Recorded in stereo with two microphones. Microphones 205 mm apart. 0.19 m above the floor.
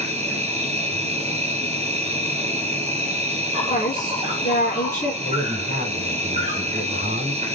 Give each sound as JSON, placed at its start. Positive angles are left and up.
{"t": 0.0, "sound": "an insect", "side_deg": -30, "distance_m": 0.9}
{"t": 3.7, "sound": "a woman speaking", "side_deg": 45, "distance_m": 1.5}
{"t": 5.2, "sound": "a man speaking", "side_deg": -50, "distance_m": 2.5}